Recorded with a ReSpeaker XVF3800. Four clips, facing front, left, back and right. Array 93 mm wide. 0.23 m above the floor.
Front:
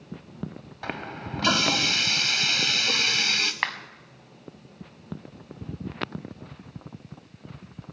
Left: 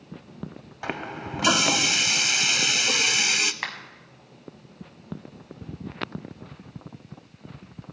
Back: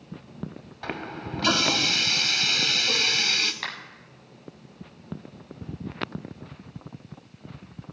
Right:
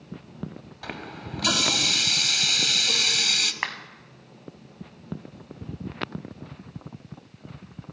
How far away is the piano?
No piano in this recording.